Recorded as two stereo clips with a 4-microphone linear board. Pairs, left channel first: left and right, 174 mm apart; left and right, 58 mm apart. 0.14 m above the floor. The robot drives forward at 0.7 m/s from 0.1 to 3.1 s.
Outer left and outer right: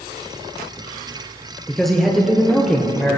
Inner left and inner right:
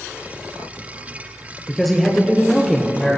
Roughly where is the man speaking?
Centre.